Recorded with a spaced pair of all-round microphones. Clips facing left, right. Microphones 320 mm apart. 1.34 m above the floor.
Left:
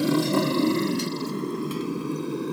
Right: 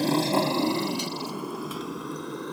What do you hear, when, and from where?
0.0 s a motorcycle: 10° left (ahead or behind); by 2.5 s 35° left (ahead or behind)